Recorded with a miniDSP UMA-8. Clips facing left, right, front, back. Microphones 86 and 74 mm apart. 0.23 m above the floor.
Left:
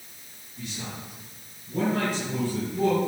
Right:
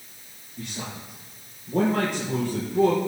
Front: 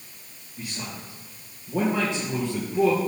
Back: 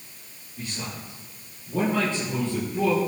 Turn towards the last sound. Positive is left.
turn(degrees=-70)